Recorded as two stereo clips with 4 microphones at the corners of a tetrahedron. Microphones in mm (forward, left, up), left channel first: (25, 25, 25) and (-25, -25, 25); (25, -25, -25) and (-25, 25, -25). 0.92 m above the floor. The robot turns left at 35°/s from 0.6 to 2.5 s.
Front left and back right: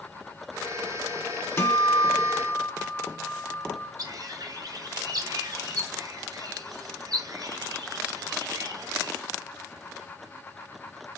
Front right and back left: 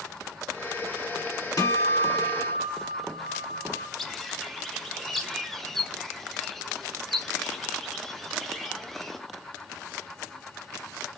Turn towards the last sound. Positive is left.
turn(degrees=-130)